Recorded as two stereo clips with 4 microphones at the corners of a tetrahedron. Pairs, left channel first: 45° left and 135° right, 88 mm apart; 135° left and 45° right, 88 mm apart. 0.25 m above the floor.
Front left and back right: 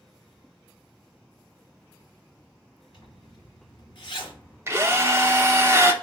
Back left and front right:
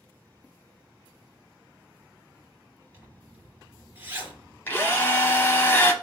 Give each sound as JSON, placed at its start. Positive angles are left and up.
{"t": 2.9, "sound": "a zipper", "azimuth_deg": 20, "distance_m": 2.5}
{"t": 4.7, "sound": "a drill", "azimuth_deg": -175, "distance_m": 0.6}